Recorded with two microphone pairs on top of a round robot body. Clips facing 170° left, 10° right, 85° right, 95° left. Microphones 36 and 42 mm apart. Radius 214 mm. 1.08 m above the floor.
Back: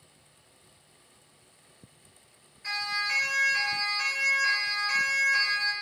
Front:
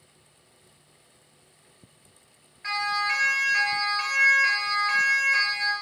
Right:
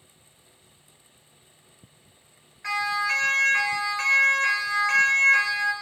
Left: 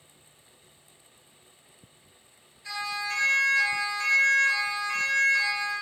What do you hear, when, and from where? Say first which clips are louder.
2.6 s a siren: front 4 dB, right 7 dB; 60° right, 4.5 m; by 5.7 s 65° right, 2.5 m